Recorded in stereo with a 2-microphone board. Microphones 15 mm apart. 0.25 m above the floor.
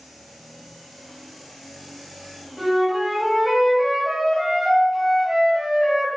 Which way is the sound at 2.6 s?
25° right (ahead or behind).